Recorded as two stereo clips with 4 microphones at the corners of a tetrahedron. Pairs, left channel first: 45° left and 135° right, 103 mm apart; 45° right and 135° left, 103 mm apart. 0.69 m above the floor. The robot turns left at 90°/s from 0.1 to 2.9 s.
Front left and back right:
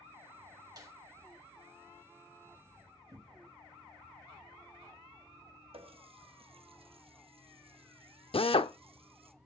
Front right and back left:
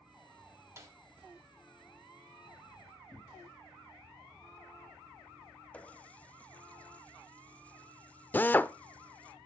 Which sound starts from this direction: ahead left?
A drill, at 8.3 s.